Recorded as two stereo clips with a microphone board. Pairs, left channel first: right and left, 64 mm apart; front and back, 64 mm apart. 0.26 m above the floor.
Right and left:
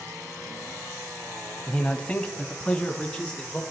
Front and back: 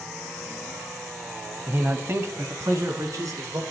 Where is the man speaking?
150° right, 1.1 m; by 3.6 s 165° right, 2.5 m.